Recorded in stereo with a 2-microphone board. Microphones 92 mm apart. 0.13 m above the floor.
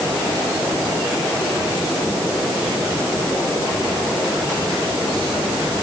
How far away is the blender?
No blender in this recording.